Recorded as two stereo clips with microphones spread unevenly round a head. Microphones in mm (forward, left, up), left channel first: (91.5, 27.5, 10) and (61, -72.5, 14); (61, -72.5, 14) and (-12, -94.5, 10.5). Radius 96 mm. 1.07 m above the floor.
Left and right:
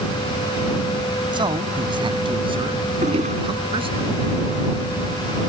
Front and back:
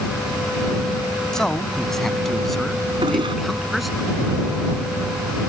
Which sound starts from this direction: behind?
A toilet flushing, at 3.0 s.